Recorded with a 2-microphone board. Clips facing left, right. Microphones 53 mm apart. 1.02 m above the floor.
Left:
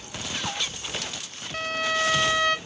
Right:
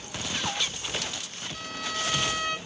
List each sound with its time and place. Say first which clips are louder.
1.5 s a violin: left 9 dB; 55° left (ahead or behind), 0.5 m